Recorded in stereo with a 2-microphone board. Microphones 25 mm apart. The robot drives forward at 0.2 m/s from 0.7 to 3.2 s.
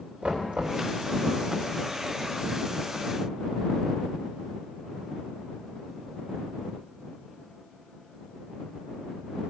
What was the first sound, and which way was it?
Knocking, 70° right (ahead or behind).